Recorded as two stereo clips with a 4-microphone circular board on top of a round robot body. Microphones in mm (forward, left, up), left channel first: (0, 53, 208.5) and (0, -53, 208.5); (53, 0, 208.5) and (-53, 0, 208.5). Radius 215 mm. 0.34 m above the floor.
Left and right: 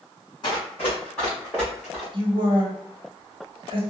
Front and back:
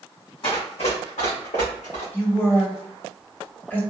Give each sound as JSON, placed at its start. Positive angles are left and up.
{"t": 0.4, "sound": "running footsteps", "azimuth_deg": 40, "distance_m": 1.3}
{"t": 2.1, "sound": "a woman speaking", "azimuth_deg": -70, "distance_m": 1.6}